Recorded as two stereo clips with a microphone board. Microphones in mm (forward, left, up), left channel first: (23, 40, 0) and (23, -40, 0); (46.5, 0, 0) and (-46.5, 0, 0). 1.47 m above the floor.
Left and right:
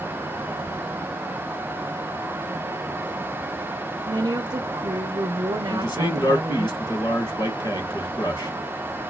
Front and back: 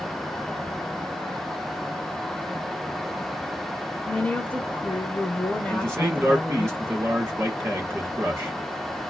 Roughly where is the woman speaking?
Right.